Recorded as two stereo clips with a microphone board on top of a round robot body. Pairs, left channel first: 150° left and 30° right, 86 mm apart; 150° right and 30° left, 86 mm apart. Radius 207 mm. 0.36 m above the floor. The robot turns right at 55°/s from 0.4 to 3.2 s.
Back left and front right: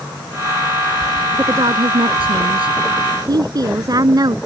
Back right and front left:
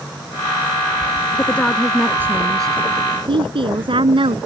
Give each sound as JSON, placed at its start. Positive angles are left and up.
{"t": 1.4, "sound": "a woman speaking", "azimuth_deg": -85}